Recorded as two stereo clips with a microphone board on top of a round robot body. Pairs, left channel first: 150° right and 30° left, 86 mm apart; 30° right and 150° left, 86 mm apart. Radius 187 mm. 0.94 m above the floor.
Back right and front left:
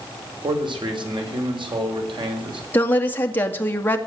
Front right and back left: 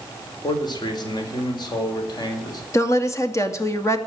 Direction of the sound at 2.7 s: 85° right.